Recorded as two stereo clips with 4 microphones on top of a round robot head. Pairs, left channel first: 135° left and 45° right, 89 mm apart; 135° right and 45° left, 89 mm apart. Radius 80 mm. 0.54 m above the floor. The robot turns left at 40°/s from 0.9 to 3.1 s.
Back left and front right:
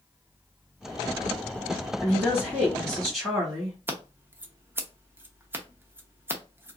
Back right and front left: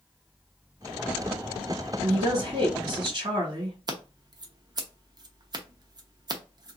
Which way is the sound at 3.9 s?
20° left.